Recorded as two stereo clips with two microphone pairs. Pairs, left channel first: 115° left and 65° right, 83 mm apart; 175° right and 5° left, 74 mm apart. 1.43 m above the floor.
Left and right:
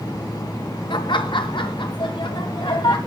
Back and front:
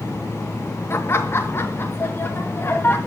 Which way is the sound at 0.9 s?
130° left.